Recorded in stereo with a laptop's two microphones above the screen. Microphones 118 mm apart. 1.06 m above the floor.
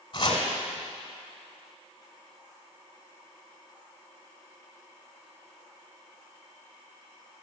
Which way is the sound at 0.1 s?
45° left (ahead or behind).